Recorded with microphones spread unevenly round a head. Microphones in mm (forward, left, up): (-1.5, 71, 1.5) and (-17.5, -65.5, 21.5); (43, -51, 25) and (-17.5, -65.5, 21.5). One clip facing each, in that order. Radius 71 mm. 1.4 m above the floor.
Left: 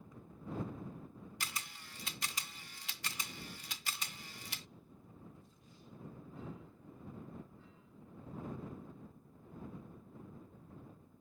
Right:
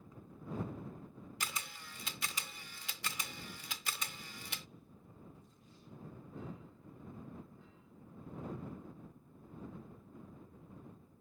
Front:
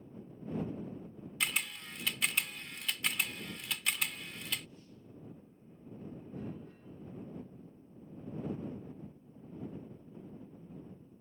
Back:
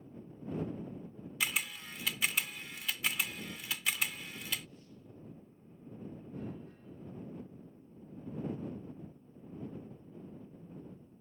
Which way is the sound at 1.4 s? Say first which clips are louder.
Right 3 dB, even; 80° right.